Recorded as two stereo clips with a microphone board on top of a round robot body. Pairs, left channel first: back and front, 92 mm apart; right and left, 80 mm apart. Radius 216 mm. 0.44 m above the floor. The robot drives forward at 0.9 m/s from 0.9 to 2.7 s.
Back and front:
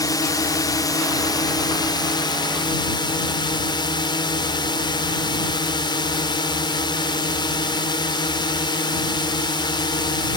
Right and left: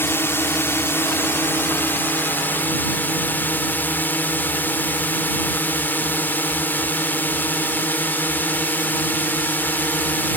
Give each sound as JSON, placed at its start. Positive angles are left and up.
{"t": 0.0, "sound": "a drone", "azimuth_deg": -145}